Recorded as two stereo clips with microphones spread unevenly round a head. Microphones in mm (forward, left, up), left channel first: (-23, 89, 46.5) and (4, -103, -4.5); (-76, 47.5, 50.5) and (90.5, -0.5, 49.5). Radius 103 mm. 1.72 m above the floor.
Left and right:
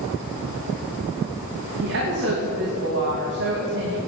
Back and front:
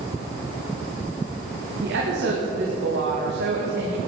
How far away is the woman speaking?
About 2.5 m.